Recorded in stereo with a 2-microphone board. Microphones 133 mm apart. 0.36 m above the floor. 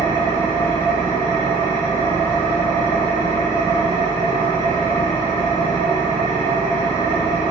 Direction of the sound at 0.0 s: 60° left (ahead or behind).